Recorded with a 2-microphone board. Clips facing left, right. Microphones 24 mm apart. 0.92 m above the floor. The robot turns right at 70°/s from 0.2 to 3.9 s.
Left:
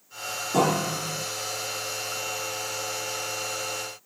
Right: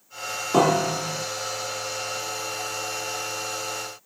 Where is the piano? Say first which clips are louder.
Right 4 dB; 65° right, 0.7 m; by 1.2 s 20° right, 0.7 m.